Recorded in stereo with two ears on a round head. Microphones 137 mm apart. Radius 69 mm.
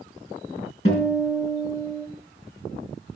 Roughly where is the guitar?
Left.